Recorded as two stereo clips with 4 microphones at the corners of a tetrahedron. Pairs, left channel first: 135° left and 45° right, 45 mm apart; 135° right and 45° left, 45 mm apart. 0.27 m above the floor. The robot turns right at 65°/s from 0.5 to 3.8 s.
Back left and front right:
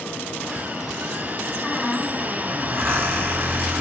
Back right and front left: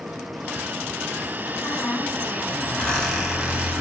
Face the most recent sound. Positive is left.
turn(degrees=0)